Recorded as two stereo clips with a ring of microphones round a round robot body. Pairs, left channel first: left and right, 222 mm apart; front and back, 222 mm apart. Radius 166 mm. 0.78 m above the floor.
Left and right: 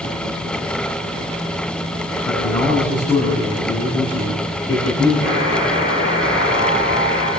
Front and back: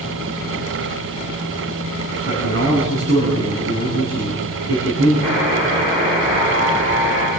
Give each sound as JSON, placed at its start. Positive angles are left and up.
{"t": 2.2, "sound": "a man speaking", "azimuth_deg": 160, "distance_m": 7.5}
{"t": 5.2, "sound": "a buzzer", "azimuth_deg": 120, "distance_m": 8.0}